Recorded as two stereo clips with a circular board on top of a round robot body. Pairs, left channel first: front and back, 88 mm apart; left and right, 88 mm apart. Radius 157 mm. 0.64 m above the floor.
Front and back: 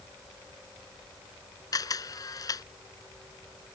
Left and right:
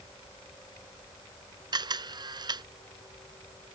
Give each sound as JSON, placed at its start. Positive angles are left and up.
{"t": 1.7, "sound": "a camera shutter", "azimuth_deg": -50}